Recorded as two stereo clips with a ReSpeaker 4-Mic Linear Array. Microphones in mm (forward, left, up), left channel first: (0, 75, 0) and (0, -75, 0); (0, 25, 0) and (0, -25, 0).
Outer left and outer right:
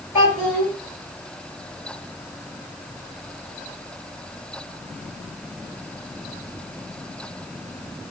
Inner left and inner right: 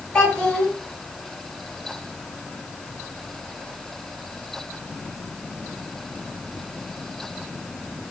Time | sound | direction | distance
0.1 | a child speaking | 20° left (ahead or behind) | 1.9 m